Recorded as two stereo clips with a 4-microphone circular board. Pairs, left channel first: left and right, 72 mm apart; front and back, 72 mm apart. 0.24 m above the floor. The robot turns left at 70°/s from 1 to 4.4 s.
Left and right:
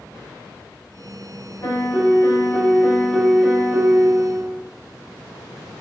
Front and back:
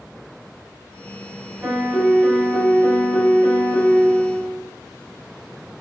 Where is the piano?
125° left, 1.1 m; by 4.6 s 70° right, 1.1 m.